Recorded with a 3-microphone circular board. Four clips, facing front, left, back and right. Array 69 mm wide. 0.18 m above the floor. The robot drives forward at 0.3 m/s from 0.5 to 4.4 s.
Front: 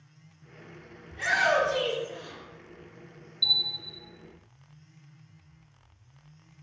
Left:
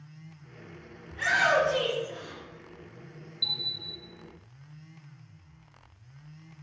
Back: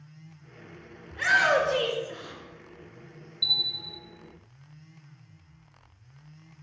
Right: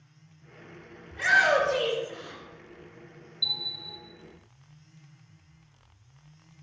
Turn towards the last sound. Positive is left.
turn(degrees=115)